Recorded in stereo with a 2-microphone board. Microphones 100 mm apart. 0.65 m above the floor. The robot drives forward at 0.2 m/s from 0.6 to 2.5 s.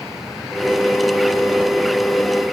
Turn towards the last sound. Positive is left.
No sound to turn to.